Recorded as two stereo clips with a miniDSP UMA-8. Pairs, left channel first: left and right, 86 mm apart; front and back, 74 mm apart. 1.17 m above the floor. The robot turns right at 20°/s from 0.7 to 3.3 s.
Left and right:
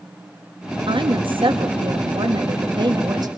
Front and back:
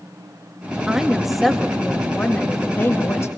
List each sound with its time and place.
0.9 s a woman speaking: 100° right, 2 m; by 3.3 s 50° right, 2 m